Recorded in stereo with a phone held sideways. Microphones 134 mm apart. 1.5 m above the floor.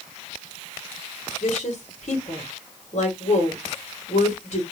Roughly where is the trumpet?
No trumpet in this recording.